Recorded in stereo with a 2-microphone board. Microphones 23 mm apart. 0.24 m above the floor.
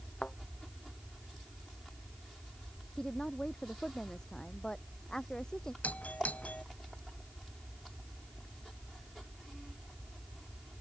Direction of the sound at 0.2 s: 50° left (ahead or behind).